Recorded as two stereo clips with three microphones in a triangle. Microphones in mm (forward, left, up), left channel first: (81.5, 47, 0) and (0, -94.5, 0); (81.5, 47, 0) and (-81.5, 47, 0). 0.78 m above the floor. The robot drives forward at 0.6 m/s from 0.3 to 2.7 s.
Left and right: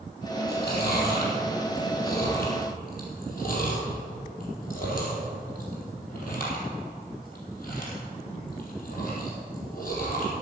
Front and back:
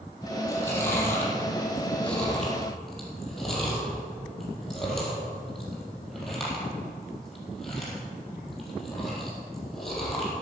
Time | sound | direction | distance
0.5 | chewing | 70° left | 4.5 m